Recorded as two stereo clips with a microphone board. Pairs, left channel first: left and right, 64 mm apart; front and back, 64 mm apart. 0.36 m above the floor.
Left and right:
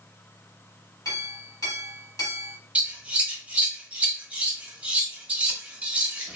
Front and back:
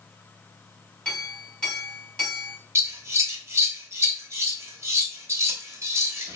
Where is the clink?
75° left, 1.6 m.